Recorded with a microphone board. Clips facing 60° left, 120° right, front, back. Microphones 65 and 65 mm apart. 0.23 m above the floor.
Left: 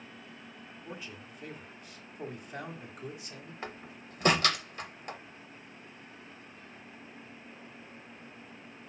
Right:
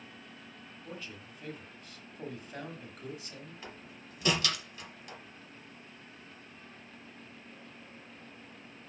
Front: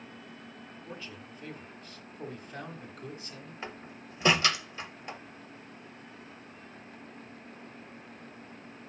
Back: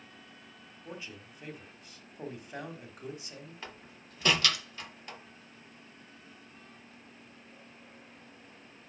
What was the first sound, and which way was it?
A man speaking, 130° left.